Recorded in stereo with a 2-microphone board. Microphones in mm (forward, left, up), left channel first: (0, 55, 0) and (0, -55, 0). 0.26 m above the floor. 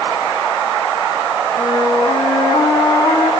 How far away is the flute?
About 3 m.